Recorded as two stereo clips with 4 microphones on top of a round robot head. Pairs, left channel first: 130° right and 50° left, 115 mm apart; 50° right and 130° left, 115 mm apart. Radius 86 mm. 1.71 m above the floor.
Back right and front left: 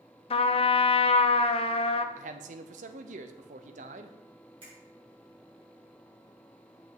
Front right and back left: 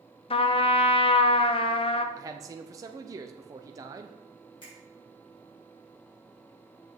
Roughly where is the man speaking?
Left.